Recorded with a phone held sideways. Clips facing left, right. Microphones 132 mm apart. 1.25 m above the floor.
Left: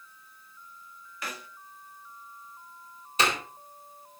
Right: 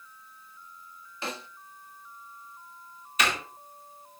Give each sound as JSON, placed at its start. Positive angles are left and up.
{"t": 1.2, "sound": "a snare drum", "side_deg": -30, "distance_m": 0.8}
{"t": 3.2, "sound": "a door slam", "side_deg": 30, "distance_m": 4.0}